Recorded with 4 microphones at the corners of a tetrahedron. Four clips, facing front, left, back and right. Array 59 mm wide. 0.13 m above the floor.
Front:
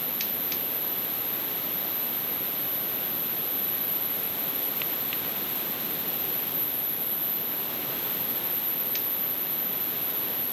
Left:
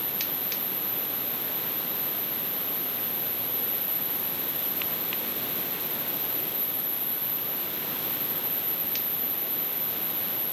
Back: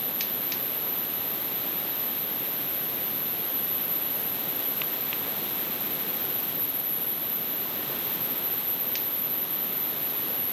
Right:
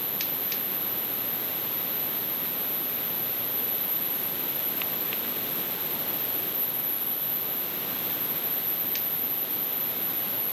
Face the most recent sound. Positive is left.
No sound to turn to.